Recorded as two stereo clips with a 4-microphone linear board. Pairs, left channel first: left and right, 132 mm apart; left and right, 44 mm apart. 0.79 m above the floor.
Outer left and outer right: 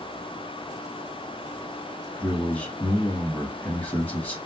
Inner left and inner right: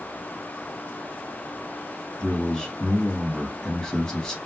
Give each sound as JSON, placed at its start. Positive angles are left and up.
{"t": 2.2, "sound": "a man speaking", "side_deg": 10, "distance_m": 1.4}